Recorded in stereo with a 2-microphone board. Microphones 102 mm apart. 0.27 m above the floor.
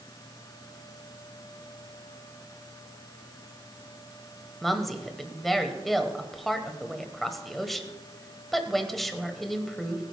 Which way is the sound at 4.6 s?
Centre (ahead or behind).